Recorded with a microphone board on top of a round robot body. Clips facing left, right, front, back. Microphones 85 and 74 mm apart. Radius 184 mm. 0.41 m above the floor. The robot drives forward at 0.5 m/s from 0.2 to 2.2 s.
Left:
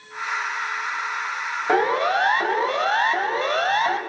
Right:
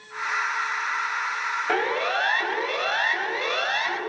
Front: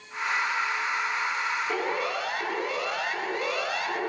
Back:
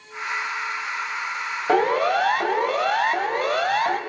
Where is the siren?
160° left, 6 m; by 4.0 s 140° left, 6.5 m.